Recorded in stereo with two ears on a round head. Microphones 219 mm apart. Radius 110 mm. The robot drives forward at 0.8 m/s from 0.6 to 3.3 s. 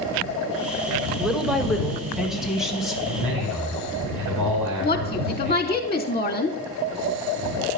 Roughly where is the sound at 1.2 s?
Centre.